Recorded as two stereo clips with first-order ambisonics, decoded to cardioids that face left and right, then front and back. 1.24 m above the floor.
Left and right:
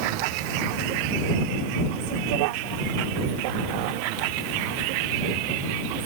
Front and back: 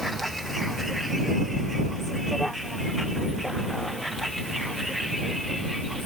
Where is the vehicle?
90° right.